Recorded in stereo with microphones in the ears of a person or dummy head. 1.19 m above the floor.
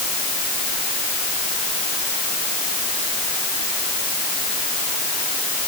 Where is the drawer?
No drawer in this recording.